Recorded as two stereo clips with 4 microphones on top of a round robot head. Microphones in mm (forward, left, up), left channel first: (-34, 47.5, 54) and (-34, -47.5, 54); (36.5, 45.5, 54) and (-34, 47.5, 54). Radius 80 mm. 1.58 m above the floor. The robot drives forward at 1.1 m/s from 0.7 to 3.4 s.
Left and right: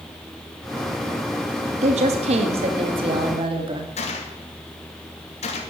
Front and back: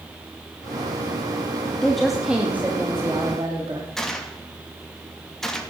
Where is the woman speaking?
85° right, 2.5 m; by 3.9 s 125° right, 3 m.